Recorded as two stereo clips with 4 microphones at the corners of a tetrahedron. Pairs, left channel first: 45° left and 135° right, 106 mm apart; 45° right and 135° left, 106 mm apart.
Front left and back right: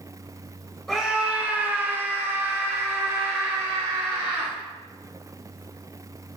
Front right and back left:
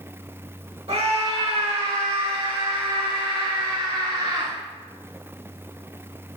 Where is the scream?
135° left, 2 m; by 4.5 s 175° right, 4.5 m.